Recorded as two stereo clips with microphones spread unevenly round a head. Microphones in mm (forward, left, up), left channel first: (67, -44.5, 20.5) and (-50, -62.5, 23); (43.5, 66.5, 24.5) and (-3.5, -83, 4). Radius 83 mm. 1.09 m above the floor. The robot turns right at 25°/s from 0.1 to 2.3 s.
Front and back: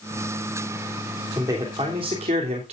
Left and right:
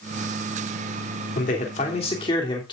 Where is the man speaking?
115° left, 3 m; by 2.7 s 140° left, 3 m.